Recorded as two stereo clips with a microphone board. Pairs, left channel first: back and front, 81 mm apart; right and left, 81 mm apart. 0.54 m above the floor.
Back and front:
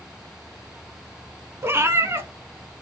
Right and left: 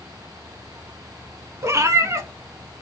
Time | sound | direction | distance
1.6 | a cat meowing | 50° left | 0.6 m